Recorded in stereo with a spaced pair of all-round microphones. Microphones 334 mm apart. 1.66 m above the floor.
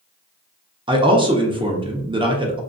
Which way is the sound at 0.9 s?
15° right (ahead or behind).